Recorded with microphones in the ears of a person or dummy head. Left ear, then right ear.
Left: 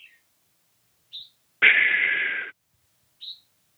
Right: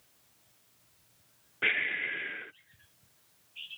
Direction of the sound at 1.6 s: 45° left (ahead or behind).